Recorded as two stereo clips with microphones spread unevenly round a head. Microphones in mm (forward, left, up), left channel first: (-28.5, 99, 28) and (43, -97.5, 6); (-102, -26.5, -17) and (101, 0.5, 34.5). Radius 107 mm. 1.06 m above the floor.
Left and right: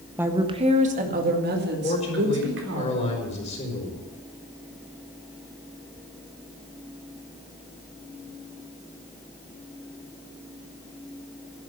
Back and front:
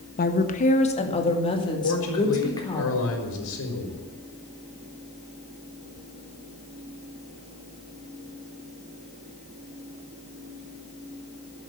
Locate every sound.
0.2 s a woman speaking: 150° right, 1.3 m; by 2.8 s 100° right, 4 m
1.8 s a man speaking: 170° left, 4 m